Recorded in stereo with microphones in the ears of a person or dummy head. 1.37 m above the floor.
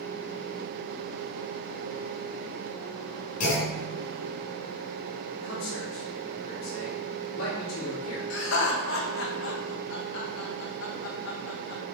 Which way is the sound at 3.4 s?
45° left (ahead or behind).